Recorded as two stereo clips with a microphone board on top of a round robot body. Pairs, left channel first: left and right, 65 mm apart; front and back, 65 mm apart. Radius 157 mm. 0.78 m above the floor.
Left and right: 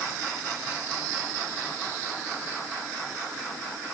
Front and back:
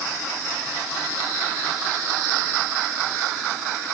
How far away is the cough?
I don't hear a cough.